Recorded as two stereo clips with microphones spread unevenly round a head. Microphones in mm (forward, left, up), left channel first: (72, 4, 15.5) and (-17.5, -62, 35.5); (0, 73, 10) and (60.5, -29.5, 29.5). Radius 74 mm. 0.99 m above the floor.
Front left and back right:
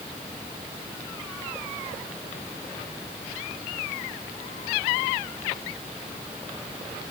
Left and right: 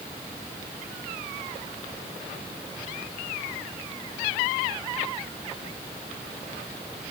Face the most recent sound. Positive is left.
No sound to turn to.